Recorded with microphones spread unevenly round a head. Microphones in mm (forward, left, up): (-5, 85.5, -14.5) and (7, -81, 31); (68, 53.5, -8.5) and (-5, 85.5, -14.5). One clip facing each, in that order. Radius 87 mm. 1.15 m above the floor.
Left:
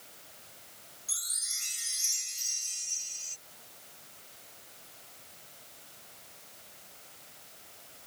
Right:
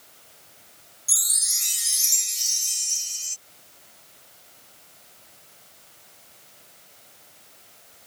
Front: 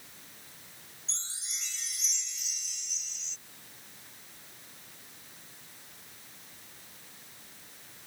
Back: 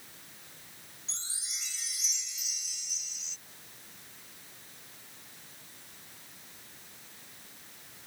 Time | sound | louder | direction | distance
1.1 | a chime | right 5 dB, even | 115° right | ?